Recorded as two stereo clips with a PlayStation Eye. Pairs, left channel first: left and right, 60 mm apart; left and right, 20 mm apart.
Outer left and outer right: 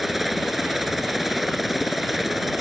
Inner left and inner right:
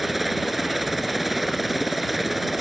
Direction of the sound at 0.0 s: 5° right (ahead or behind).